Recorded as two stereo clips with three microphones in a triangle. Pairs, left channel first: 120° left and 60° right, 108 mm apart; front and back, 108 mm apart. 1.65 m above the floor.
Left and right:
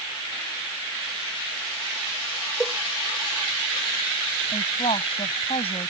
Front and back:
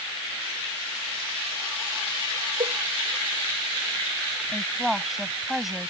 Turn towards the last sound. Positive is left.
turn(degrees=90)